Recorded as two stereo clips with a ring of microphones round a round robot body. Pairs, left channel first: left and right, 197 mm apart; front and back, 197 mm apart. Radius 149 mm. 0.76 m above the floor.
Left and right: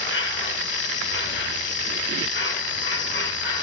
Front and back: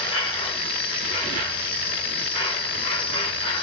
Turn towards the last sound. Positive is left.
turn(degrees=65)